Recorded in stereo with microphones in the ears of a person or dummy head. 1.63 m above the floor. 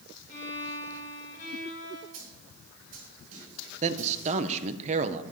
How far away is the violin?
About 8 m.